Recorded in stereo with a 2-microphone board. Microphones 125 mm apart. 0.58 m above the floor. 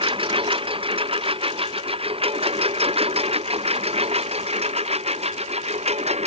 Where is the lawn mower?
40° right (ahead or behind); by 6.3 s 50° right (ahead or behind).